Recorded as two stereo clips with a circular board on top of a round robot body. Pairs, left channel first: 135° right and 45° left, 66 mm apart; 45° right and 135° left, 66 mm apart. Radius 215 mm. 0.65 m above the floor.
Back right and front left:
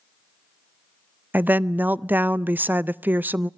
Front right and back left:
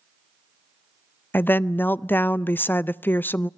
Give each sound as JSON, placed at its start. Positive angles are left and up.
{"t": 1.3, "sound": "a woman speaking", "azimuth_deg": 0, "distance_m": 0.7}